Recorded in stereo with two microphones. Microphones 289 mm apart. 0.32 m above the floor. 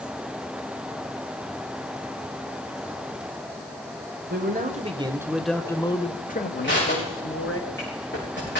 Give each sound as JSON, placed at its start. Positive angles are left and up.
{"t": 4.3, "sound": "a man speaking", "side_deg": -35, "distance_m": 1.4}
{"t": 6.6, "sound": "crushing", "side_deg": 40, "distance_m": 9.5}